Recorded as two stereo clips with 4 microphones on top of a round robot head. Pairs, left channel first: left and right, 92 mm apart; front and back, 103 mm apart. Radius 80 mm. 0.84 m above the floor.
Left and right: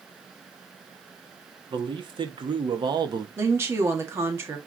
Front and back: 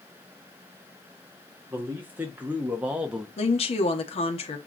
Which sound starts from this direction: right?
A man speaking, at 1.7 s.